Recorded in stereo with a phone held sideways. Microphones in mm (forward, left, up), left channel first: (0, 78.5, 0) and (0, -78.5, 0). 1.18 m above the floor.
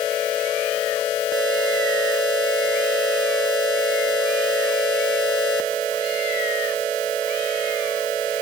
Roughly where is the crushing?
No crushing in this recording.